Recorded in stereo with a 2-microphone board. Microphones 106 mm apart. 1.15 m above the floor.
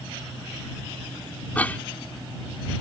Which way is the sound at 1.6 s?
15° left (ahead or behind).